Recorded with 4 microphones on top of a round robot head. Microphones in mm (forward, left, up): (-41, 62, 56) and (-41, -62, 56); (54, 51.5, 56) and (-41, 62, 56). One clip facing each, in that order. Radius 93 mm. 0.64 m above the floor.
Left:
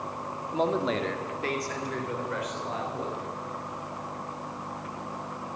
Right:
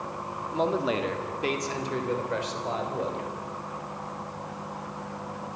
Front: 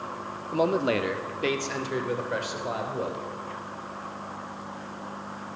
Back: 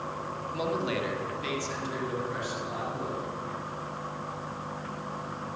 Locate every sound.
0.5 s a man speaking: 5° left, 1.8 m; by 3.2 s 35° right, 4.5 m